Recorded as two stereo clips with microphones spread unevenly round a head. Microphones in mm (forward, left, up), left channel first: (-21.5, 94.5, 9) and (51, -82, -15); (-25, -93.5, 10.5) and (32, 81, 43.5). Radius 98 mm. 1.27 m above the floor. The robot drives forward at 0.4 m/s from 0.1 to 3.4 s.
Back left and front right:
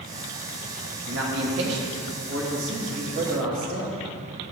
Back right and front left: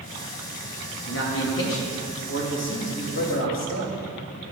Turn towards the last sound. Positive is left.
turn(degrees=-115)